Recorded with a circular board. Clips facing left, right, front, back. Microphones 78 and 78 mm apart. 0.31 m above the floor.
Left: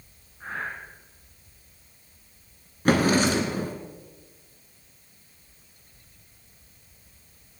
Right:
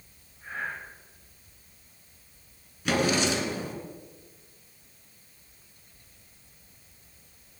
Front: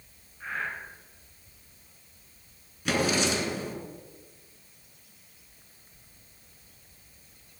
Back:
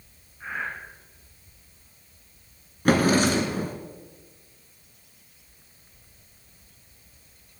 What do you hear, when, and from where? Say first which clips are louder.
0.4 s breathing: left 2 dB, back 2 dB; 100° left, 3.5 m
2.9 s a drawer: left 5 dB, back 7 dB; 135° left, 2 m